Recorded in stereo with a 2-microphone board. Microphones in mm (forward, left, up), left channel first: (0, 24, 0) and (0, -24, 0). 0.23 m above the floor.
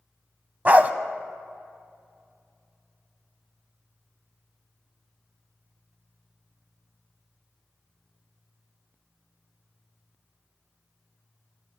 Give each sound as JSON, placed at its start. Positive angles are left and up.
{"t": 0.7, "sound": "a dog barking", "side_deg": -35, "distance_m": 0.5}